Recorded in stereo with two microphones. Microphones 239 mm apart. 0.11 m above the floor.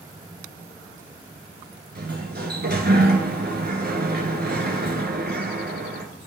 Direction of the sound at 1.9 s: 45° right (ahead or behind).